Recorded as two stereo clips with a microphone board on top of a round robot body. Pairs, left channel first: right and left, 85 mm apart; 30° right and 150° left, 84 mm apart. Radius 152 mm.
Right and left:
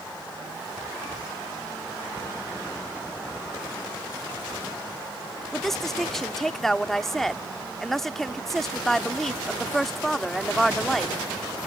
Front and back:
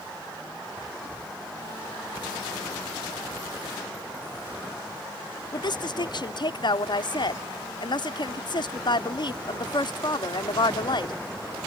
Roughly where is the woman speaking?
Ahead.